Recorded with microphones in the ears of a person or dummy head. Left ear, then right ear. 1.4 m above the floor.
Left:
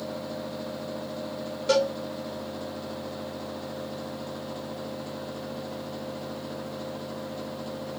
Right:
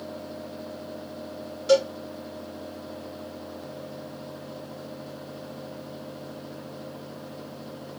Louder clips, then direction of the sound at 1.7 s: Right 3 dB; 15° left (ahead or behind).